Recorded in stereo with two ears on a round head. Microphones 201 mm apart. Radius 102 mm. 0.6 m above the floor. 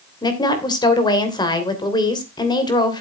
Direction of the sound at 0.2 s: 20° left (ahead or behind).